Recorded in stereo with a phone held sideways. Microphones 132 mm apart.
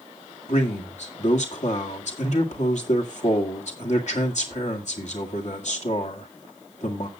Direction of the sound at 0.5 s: 60° left (ahead or behind).